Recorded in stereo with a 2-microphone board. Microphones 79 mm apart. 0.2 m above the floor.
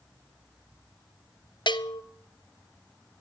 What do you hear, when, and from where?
1.7 s a bell: 80° left, 0.8 m